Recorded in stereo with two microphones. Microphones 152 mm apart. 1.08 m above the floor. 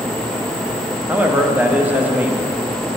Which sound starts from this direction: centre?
A man speaking, at 1.1 s.